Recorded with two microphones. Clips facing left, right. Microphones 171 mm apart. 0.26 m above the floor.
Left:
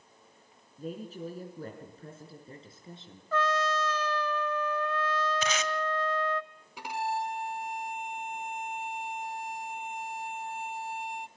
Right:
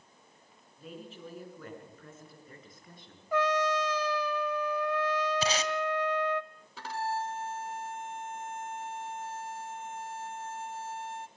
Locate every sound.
0.8 s a woman speaking: 45° left (ahead or behind), 4 m; by 3.2 s 25° left (ahead or behind), 4.5 m
3.3 s a trumpet: 15° right (ahead or behind), 1.0 m
5.4 s tape being pulled: 35° right (ahead or behind), 1.6 m
6.8 s a violin: 15° left (ahead or behind), 0.7 m